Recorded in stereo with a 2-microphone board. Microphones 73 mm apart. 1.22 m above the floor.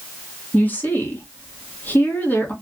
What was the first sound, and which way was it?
A woman speaking, 25° left (ahead or behind).